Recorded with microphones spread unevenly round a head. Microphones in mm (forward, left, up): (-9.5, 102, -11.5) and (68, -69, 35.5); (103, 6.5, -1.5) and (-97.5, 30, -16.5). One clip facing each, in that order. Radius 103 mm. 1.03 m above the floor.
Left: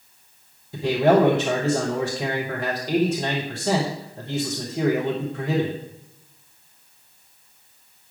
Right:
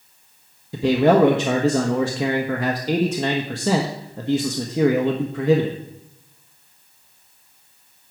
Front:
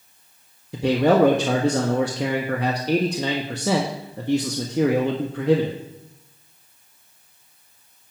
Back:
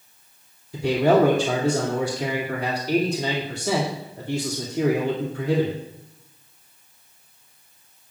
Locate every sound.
0.7 s a man speaking: 45° right, 1.3 m